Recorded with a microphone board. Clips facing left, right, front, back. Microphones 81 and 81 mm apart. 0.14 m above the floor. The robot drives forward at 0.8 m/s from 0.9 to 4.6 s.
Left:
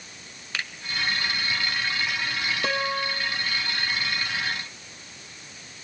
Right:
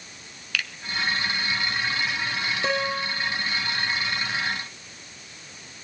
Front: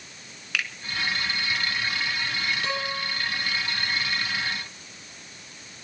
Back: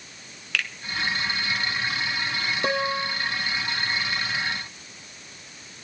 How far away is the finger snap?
About 1.3 m.